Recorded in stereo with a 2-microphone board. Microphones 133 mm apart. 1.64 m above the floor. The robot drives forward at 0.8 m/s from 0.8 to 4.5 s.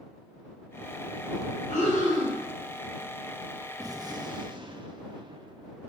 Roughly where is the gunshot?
Right.